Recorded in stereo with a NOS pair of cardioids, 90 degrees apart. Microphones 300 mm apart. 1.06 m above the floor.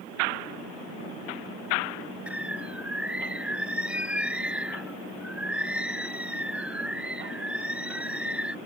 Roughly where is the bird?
Ahead.